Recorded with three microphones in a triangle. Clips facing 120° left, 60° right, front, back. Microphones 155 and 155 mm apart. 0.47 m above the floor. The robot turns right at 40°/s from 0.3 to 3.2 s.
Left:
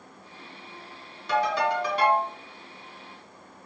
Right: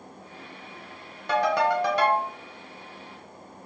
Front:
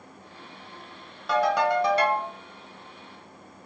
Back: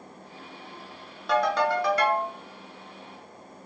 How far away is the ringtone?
About 1.1 m.